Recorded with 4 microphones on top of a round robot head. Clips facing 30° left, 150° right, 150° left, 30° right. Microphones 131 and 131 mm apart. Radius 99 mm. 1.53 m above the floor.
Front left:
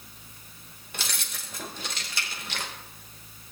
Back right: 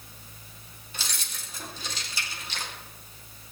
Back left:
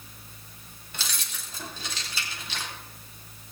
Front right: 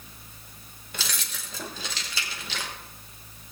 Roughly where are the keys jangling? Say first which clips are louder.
Front left 2 dB, front right 2 dB; ahead.